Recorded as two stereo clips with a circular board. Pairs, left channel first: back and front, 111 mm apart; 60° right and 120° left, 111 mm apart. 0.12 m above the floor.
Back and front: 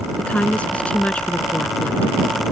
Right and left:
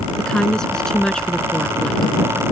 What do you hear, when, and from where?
0.2 s a woman speaking: 130° right